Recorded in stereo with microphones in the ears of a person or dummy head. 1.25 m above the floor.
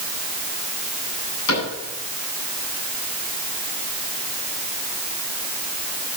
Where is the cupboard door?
80° left, 10 m.